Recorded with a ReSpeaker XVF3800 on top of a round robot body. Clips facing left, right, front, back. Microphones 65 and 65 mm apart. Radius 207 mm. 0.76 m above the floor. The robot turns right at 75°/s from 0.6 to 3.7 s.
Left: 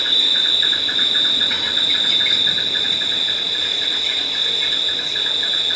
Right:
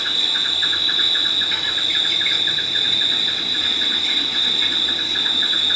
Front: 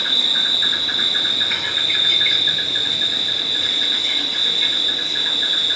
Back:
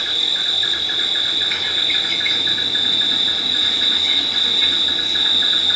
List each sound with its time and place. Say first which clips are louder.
0.0 s an insect: left 2 dB, front 2 dB; 5° right, 3.5 m; by 5.8 s 135° right, 3.5 m